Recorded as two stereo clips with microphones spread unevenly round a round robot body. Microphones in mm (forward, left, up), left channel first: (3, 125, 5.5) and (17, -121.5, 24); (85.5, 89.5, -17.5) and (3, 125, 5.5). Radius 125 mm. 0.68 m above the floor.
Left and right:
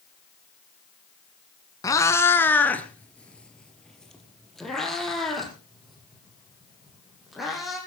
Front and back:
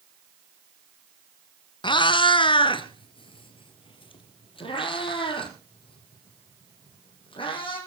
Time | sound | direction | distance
1.8 | a cat meowing | 15° left | 1.0 m